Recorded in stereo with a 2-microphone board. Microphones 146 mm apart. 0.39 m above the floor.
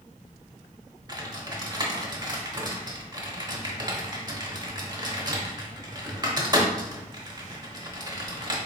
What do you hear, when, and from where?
1.1 s typing on a keyboard: 30° right (ahead or behind), 0.8 m